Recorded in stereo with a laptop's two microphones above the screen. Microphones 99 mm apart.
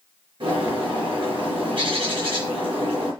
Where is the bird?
55° right (ahead or behind), 4.5 m.